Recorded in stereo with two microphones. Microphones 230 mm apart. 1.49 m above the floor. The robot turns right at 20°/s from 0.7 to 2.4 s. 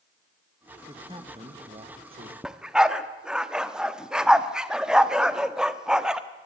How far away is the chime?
I don't hear a chime.